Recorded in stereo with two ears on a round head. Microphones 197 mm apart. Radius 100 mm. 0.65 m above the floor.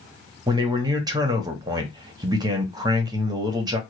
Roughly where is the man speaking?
Centre.